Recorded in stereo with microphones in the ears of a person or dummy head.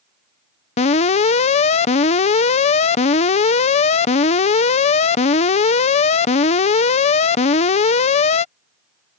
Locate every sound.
0.8 s an alarm: 35° left (ahead or behind)